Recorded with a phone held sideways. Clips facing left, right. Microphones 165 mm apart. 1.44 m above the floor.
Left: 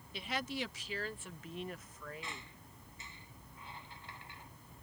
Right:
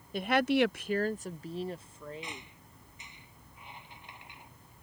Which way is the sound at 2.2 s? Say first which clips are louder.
Right 3 dB; 20° right (ahead or behind).